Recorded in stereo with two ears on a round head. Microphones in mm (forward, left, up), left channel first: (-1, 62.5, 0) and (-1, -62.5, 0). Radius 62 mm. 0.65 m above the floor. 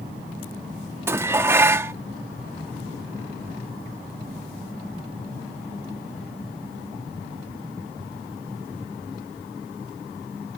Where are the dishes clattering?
15° right (ahead or behind).